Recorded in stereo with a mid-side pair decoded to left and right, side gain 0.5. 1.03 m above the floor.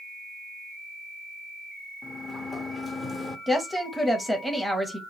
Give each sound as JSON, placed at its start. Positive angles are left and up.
{"t": 2.0, "sound": "a sliding door", "azimuth_deg": 25, "distance_m": 0.8}
{"t": 3.5, "sound": "a woman speaking", "azimuth_deg": 0, "distance_m": 0.8}